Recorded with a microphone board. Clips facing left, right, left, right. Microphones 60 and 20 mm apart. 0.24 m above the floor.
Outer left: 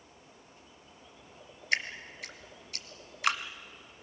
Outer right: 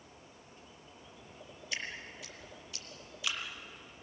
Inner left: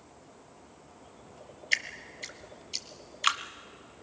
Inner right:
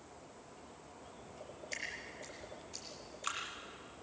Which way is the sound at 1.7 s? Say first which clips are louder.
Outer left 9 dB, inner left 13 dB; 60° left (ahead or behind).